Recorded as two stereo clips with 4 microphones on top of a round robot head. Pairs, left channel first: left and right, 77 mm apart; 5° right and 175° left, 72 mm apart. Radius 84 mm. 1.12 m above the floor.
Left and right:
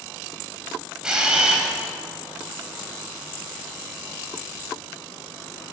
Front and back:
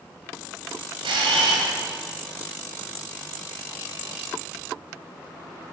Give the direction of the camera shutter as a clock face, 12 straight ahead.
6 o'clock.